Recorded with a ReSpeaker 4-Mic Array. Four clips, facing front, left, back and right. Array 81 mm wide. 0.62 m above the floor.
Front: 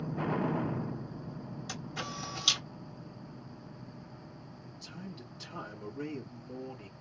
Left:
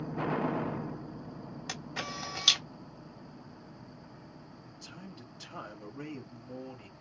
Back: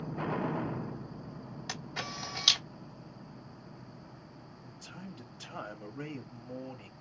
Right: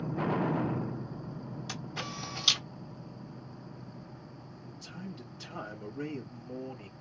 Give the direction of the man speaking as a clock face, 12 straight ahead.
6 o'clock.